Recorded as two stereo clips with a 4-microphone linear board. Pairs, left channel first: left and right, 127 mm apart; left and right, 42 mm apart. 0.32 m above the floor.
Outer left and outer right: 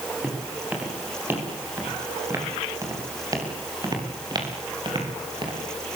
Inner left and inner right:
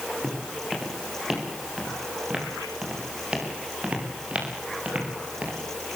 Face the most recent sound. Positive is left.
turn(degrees=-40)  # may be behind; listen again after turning